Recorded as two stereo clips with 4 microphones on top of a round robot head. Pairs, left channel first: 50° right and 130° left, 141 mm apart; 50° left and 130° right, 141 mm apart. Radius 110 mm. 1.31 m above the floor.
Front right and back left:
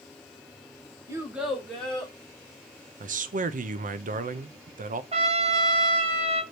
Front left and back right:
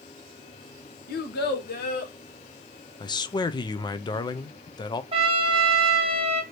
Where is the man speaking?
110° left, 0.6 m.